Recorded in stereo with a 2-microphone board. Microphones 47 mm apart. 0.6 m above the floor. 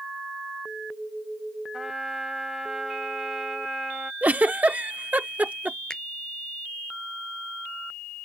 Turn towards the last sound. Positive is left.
turn(degrees=15)  # may be behind; listen again after turning